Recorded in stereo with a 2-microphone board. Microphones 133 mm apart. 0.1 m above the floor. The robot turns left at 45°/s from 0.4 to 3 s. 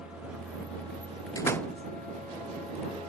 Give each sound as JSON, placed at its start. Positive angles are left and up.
{"t": 0.0, "sound": "a vehicle", "azimuth_deg": -10}
{"t": 1.4, "sound": "a door slam", "side_deg": 25}